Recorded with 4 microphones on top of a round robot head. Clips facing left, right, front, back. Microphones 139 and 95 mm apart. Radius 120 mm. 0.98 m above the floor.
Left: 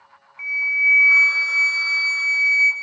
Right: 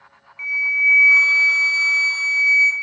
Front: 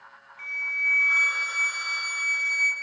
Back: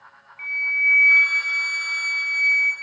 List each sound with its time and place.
0.4 s a flute: 35° right, 0.6 m